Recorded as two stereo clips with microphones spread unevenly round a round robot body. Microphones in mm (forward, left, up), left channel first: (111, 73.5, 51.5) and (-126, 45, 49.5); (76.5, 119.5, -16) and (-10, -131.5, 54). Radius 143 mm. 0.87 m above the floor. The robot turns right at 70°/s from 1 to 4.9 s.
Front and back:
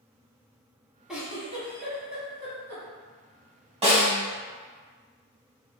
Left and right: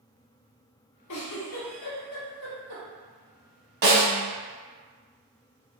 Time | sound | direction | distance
1.1 | a giggle | 100° left | 1.0 m
3.8 | a snare drum | 110° right | 0.8 m